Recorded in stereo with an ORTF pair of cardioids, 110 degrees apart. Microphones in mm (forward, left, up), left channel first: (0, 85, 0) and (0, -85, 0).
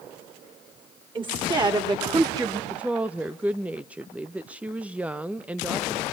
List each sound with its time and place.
1.1 s a woman speaking: 25° right, 4 m; by 2.6 s 20° right, 2.5 m
2.7 s a woman speaking: 5° right, 0.6 m